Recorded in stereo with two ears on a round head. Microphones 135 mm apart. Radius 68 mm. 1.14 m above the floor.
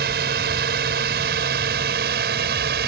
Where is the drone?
75° right (ahead or behind).